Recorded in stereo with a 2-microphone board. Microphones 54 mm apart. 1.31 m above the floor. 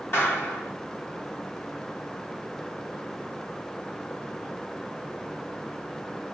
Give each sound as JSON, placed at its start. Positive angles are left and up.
{"t": 0.1, "sound": "a clap", "side_deg": 45, "distance_m": 2.5}